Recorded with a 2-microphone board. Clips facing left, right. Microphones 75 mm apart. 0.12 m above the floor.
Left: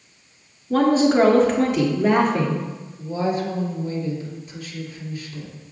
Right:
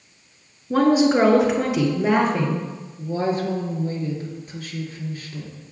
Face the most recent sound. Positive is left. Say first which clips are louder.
# even
turn(degrees=-40)  # may be behind; listen again after turning